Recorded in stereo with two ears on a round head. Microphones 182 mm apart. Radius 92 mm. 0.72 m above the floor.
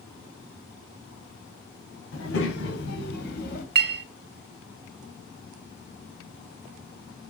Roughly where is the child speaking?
Left.